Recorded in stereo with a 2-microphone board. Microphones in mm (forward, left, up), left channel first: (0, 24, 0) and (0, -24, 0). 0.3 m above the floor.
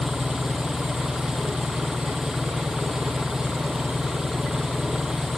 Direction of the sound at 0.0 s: 10° right (ahead or behind).